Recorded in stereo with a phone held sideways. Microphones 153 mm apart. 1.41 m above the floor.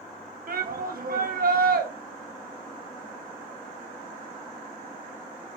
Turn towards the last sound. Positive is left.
turn(degrees=-70)  # may be behind; listen again after turning